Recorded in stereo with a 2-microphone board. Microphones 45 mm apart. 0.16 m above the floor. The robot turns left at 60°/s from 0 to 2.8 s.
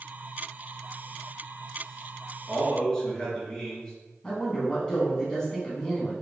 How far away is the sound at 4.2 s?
About 1.1 m.